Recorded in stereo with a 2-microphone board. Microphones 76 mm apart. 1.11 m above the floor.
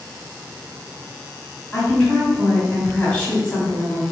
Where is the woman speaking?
20° left (ahead or behind), 1.9 m.